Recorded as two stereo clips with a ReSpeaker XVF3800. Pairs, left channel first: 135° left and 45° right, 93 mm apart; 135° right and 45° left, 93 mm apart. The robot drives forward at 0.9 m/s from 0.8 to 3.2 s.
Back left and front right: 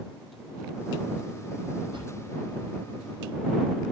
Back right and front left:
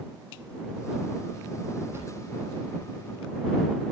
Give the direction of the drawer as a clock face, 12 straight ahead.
1 o'clock.